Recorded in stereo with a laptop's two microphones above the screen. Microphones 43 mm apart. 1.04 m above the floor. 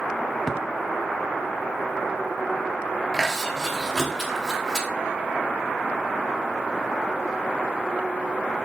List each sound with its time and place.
0.5 s a thud: 10° left (ahead or behind), 1.0 m
3.1 s chewing: centre (ahead or behind), 3 m